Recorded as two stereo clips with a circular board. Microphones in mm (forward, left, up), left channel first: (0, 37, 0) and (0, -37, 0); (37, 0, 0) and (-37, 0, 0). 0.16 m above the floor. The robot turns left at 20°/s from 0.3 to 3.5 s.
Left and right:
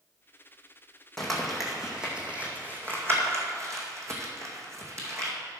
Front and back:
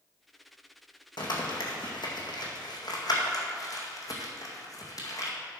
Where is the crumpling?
5° left, 2.0 m; by 5.3 s 40° right, 2.0 m.